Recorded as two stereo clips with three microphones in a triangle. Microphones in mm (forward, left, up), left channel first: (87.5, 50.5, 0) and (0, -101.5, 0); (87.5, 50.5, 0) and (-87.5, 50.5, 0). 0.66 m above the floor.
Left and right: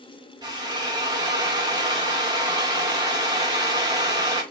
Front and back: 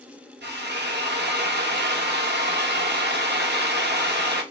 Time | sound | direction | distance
0.4 | a drill | 175° left | 0.9 m